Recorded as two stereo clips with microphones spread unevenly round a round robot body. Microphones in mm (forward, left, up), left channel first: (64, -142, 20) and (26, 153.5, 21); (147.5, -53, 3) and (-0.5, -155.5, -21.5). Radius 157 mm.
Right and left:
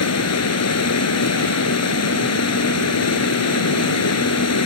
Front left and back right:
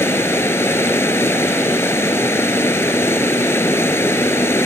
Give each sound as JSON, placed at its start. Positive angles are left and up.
{"t": 0.0, "sound": "running water", "azimuth_deg": -40}